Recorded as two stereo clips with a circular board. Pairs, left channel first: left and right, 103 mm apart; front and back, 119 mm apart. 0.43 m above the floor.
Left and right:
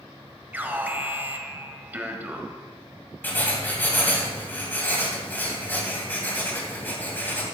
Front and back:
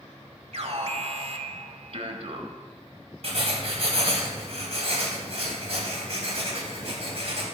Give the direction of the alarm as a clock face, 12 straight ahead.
5 o'clock.